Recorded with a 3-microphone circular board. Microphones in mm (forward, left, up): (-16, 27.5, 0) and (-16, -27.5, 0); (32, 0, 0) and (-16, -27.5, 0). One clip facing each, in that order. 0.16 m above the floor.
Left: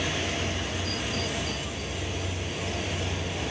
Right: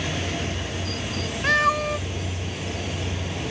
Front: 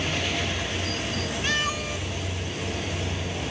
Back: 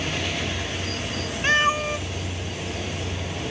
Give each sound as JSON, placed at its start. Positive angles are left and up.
{"t": 1.4, "sound": "a cat meowing", "azimuth_deg": -90}